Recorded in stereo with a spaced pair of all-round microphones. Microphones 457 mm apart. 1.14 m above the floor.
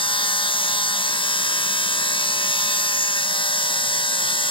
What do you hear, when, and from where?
0.0 s a machine running: 10° left (ahead or behind), 0.9 m